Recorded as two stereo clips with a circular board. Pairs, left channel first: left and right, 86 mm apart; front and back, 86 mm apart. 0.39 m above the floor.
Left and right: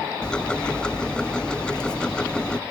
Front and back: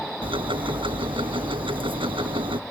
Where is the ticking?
170° left.